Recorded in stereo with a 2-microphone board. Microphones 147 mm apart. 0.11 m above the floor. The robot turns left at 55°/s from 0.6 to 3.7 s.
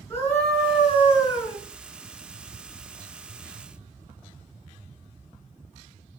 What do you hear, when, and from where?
0.1 s a scream: 15° left (ahead or behind), 1.3 m; by 1.6 s 5° right (ahead or behind), 1.3 m